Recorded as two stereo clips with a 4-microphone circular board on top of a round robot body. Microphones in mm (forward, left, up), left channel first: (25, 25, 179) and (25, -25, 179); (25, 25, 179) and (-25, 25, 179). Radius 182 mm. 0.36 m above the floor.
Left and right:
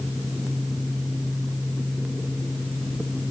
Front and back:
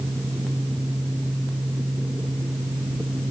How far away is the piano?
No piano in this recording.